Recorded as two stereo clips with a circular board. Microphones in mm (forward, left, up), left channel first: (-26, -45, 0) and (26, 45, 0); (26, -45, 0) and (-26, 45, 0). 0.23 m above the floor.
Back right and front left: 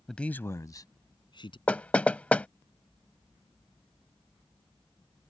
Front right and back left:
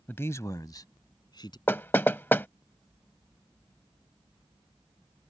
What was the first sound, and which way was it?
A man speaking, 40° right.